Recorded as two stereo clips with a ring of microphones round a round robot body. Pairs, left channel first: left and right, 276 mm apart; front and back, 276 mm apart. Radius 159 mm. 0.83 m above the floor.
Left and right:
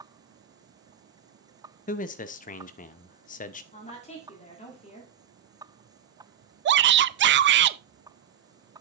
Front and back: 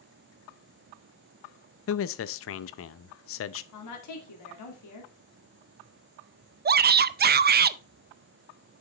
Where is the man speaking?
30° left, 0.5 m.